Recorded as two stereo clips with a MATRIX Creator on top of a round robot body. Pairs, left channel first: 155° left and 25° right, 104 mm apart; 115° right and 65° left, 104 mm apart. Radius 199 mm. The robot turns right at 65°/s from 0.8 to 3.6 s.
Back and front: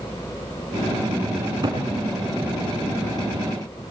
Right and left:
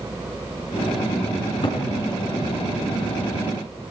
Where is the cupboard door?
90° right, 4 m; by 1.8 s 60° right, 4 m.